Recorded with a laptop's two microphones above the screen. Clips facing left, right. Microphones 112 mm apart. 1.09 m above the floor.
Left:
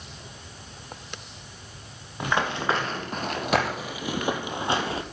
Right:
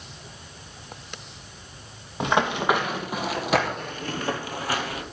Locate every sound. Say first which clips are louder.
2.2 s running footsteps: right 3 dB; 20° right (ahead or behind), 1.6 m; by 5.0 s 30° left (ahead or behind), 1.2 m